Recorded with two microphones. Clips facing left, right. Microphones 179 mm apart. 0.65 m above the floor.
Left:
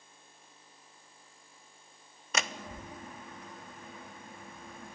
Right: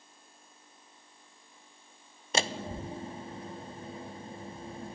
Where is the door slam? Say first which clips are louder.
Right 5 dB; 30° right (ahead or behind), 0.5 m.